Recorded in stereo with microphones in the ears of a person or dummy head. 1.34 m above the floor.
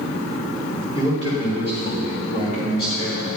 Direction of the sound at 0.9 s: 35° left (ahead or behind).